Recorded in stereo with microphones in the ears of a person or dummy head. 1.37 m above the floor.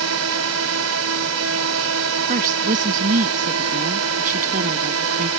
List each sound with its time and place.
0.0 s a drone: 80° right
2.3 s a woman speaking: 40° right (ahead or behind)